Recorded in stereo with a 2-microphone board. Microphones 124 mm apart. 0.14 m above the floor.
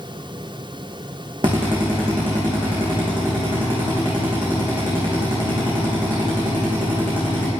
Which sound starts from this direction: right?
A drill, at 1.4 s.